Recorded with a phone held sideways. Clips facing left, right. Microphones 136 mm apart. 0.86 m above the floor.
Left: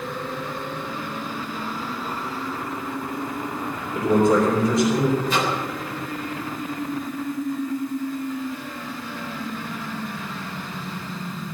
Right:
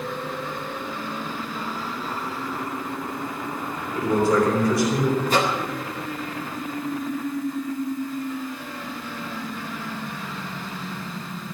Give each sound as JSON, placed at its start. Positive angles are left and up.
{"t": 4.0, "sound": "a man speaking", "side_deg": 20, "distance_m": 5.0}
{"t": 5.3, "sound": "a microwave", "side_deg": -45, "distance_m": 3.0}